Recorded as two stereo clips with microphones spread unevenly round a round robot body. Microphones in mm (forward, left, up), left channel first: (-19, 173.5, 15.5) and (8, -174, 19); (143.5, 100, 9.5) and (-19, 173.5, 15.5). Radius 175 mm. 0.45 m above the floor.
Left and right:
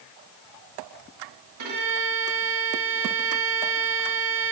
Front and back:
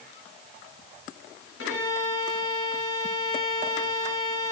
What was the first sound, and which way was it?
A violin, 50° right.